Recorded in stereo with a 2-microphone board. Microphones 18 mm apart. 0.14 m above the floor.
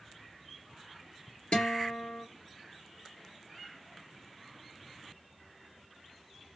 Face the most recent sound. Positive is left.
turn(degrees=55)  # may be behind; listen again after turning